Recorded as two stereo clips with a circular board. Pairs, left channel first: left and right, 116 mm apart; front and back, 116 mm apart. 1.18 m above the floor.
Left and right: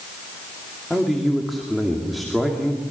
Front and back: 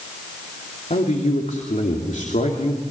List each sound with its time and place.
0.9 s a man speaking: straight ahead, 2.5 m